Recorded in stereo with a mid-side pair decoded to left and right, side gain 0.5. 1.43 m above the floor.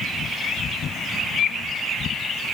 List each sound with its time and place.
Only background noise.